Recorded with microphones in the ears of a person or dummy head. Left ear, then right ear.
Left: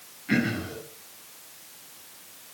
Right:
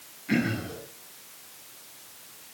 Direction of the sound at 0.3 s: Centre (ahead or behind).